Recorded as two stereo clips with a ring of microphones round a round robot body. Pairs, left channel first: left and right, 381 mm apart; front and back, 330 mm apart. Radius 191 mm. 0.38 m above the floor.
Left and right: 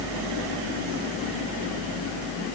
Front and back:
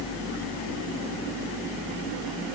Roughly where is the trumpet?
No trumpet in this recording.